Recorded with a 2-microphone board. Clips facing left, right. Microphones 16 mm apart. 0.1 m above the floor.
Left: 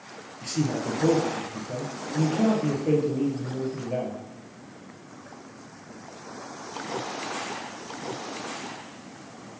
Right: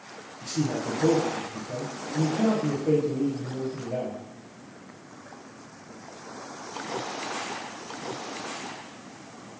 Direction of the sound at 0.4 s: 30° left (ahead or behind).